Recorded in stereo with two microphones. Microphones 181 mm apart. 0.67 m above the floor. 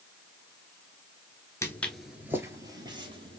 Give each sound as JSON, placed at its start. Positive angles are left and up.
{"t": 1.6, "sound": "footsteps", "side_deg": 15, "distance_m": 0.6}